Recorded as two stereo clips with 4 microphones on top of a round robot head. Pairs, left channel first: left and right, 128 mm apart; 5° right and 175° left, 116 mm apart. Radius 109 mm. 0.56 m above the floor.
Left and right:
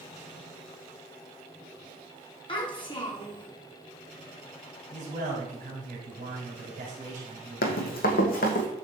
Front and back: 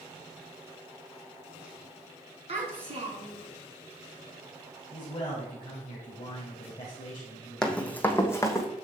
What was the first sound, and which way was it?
A child speaking, 140° left.